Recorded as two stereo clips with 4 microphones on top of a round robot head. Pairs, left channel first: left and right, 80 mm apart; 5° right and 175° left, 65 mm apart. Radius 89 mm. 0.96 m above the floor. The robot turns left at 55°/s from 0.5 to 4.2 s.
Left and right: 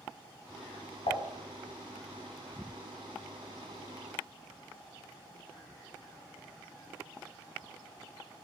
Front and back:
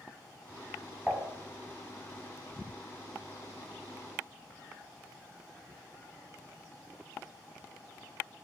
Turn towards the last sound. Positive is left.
turn(degrees=-65)